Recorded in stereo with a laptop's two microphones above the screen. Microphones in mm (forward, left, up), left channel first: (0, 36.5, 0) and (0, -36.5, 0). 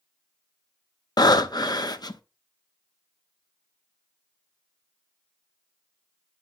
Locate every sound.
1.2 s breathing: 70° left (ahead or behind), 0.6 m